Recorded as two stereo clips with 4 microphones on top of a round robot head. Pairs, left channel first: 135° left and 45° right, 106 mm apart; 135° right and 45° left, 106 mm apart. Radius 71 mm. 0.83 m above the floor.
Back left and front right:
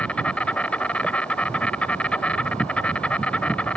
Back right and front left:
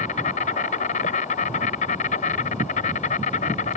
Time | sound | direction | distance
0.0 | an insect | 145° right | ?